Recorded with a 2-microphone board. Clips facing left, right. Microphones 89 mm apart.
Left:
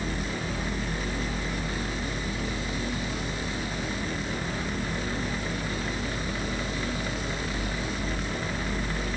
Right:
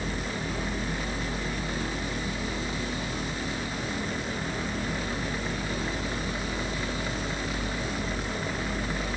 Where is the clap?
No clap in this recording.